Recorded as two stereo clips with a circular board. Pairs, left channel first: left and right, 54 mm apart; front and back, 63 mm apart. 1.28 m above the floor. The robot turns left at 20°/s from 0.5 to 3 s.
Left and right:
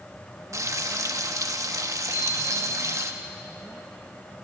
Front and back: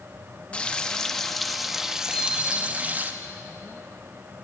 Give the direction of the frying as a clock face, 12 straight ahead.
2 o'clock.